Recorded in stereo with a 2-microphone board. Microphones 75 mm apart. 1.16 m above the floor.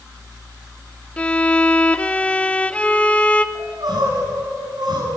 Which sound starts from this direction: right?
Crying, at 3.5 s.